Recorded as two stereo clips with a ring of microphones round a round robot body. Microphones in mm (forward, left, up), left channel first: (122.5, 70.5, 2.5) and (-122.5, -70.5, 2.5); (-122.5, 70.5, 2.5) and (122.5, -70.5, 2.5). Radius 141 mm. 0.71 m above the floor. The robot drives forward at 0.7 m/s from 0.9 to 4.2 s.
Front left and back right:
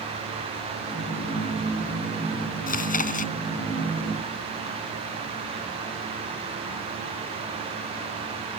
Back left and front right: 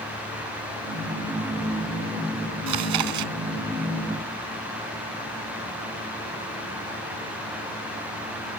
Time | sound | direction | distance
2.7 | chewing | 30° right | ?